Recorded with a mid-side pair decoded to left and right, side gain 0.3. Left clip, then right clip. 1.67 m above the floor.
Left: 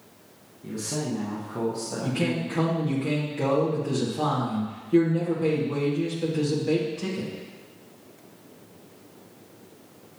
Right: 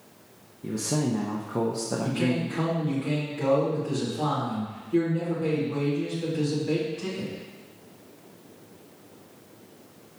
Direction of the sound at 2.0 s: 70° left.